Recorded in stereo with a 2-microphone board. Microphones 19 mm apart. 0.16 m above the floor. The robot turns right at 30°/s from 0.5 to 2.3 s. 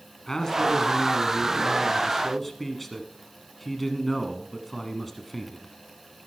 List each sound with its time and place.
0.3 s a man speaking: 25° left (ahead or behind), 1.2 m; by 5.7 s 5° left (ahead or behind), 1.2 m